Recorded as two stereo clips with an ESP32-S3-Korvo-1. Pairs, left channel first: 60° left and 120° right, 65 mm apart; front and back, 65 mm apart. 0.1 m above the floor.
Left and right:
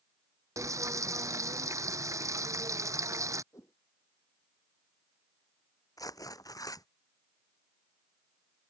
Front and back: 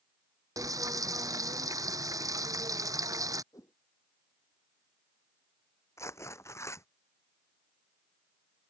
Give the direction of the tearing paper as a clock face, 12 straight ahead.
11 o'clock.